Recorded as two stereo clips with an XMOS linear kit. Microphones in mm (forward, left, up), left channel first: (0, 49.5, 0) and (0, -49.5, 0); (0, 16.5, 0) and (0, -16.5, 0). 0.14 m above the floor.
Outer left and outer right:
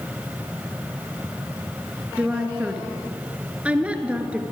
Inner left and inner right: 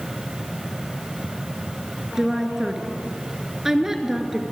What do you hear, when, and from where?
2.2 s a woman speaking: 15° right (ahead or behind), 2 m